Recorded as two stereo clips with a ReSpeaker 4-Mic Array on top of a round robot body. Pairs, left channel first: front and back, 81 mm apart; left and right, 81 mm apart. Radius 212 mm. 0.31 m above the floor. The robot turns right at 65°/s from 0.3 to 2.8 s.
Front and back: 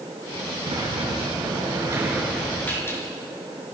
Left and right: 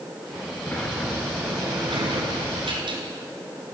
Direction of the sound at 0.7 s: 155° left.